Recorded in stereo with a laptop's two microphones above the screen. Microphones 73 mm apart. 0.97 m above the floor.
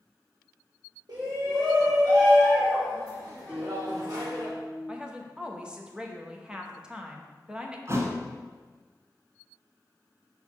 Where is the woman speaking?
15° right (ahead or behind), 0.7 m.